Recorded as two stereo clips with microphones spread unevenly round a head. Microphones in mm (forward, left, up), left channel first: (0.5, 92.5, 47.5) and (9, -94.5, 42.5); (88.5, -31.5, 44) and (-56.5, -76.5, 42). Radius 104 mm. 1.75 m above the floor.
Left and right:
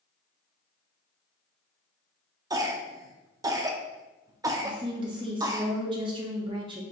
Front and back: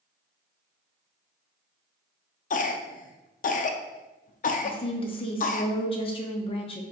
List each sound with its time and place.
2.5 s a cough: 15° right, 0.5 m
4.6 s a woman speaking: 25° right, 0.6 m